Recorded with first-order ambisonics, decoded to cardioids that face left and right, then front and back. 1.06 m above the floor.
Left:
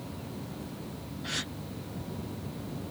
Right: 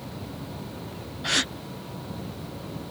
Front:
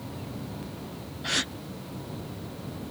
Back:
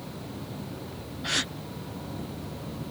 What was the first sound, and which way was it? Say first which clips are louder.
A gasp: right 10 dB, even; 90° right.